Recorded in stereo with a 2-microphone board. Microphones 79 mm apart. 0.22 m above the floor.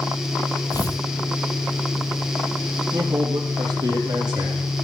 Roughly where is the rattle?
No rattle in this recording.